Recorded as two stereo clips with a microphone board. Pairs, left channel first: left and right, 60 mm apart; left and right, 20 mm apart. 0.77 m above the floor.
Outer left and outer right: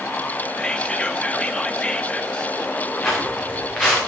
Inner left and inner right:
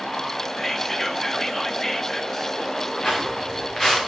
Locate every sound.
0.6 s whispering: 20° left (ahead or behind), 1.0 m
3.0 s footsteps: 10° left (ahead or behind), 5.5 m